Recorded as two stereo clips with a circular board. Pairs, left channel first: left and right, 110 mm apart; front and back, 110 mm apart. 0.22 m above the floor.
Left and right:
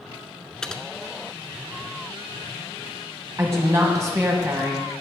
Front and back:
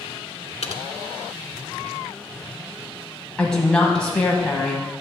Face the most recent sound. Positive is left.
turn(degrees=-70)